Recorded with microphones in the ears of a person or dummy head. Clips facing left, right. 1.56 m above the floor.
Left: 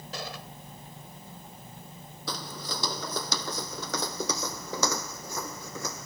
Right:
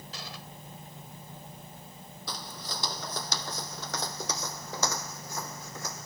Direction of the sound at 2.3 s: 65° left (ahead or behind).